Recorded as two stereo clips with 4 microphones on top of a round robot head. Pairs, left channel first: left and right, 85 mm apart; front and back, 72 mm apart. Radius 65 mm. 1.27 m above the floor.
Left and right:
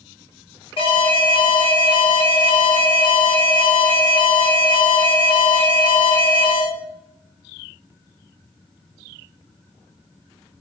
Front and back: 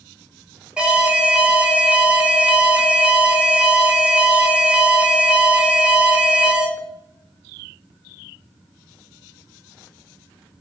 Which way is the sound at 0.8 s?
100° left.